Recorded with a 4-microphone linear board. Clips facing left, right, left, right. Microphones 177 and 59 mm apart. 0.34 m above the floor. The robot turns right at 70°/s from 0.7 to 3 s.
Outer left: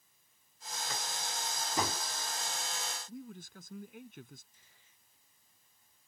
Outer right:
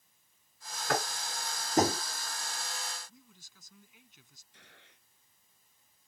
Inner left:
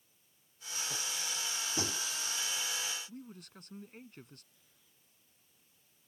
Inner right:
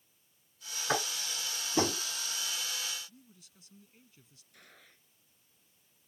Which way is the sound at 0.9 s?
75° right (ahead or behind).